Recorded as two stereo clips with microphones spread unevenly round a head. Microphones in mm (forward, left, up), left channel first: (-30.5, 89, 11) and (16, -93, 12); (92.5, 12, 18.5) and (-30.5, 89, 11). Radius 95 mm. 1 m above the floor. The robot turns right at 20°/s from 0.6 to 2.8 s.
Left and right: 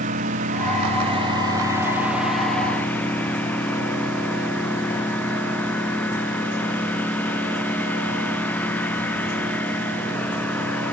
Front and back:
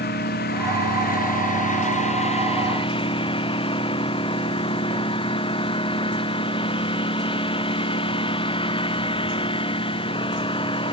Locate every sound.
0.0 s a lawn mower: 20° right; by 10.9 s 20° left